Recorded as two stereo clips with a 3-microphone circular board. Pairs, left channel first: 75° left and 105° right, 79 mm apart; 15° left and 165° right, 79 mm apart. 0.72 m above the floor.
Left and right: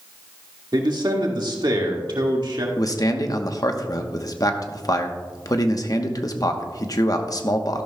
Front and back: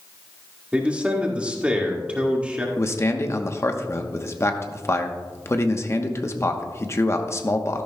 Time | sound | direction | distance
0.7 | a man speaking | 90° right | 1.8 m
2.8 | a man speaking | 60° left | 1.0 m